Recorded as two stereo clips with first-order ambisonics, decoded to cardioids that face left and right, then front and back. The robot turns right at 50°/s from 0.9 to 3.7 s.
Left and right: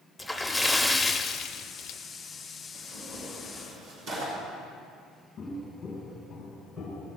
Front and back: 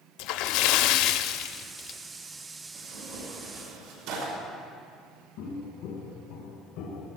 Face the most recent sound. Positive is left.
turn(degrees=5)